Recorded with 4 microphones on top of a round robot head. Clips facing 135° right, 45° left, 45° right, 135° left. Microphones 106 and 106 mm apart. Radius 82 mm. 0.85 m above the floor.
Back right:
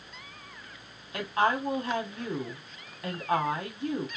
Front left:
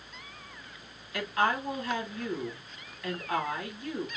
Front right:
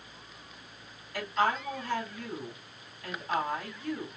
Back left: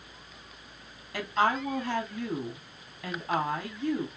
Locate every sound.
1.1 s a woman speaking: 165° left, 1.9 m